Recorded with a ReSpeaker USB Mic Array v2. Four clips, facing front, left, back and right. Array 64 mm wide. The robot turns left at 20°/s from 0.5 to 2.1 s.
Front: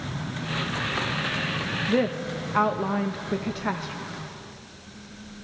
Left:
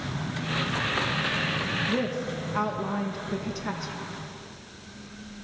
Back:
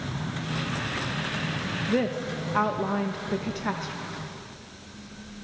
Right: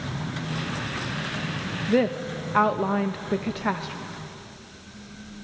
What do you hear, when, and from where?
1.9 s a woman speaking: 75° right, 0.5 m; by 3.9 s 80° right, 0.5 m